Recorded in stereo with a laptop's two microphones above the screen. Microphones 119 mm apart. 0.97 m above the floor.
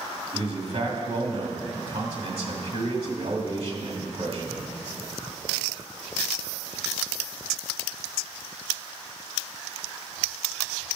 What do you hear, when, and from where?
0.3 s a man speaking: 55° right (ahead or behind), 2 m